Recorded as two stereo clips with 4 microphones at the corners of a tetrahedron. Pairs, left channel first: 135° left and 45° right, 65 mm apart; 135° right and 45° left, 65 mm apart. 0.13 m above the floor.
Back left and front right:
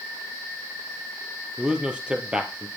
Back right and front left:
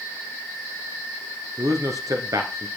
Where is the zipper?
I don't hear a zipper.